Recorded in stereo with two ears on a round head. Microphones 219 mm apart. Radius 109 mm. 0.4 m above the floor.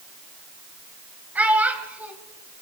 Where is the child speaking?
5° right (ahead or behind), 1.5 m.